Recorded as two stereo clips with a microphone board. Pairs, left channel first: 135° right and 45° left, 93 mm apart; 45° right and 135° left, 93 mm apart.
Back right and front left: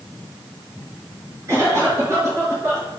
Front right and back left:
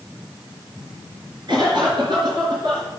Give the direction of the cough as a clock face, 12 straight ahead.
9 o'clock.